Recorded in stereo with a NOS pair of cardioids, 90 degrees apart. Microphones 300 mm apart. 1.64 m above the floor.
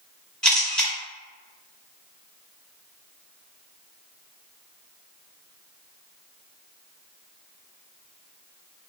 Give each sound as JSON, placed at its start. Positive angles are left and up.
{"t": 0.4, "sound": "a camera shutter", "azimuth_deg": 5, "distance_m": 1.6}